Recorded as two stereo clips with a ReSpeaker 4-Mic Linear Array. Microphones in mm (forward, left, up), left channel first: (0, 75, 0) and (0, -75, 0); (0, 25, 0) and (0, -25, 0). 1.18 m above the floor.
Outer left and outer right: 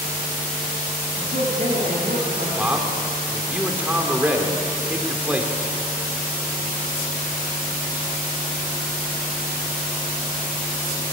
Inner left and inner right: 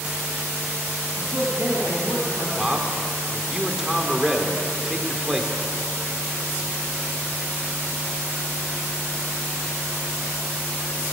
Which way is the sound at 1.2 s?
60° right (ahead or behind).